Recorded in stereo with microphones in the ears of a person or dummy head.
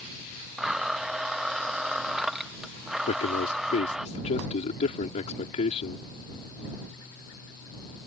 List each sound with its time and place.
0.6 s a blender: centre (ahead or behind)
3.1 s a man speaking: 40° left (ahead or behind)